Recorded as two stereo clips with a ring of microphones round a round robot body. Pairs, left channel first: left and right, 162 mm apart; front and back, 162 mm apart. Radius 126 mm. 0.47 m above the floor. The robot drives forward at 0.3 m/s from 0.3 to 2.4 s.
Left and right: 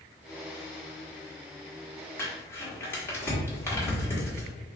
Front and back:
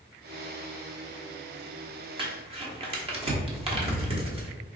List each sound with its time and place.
2.2 s crumpling: 155° left, 1.0 m